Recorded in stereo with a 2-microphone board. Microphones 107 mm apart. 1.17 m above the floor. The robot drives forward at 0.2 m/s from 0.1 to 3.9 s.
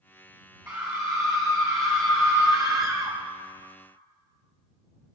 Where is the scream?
30° right (ahead or behind), 1.9 m; by 3.2 s 35° right (ahead or behind), 1.5 m.